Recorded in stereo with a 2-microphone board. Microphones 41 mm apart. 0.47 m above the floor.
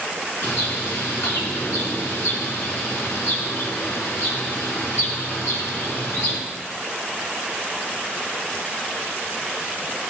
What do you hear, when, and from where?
0.4 s a bird: 80° left, 2.5 m